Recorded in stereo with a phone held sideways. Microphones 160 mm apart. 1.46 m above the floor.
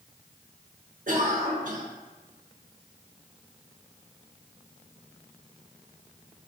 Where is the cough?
60° right (ahead or behind), 1.1 m.